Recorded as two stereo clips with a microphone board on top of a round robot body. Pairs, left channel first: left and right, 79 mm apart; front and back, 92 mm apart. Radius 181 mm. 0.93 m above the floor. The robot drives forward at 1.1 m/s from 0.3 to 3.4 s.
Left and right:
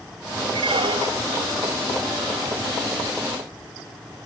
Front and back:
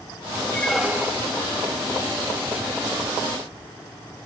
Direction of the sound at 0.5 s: 70° right.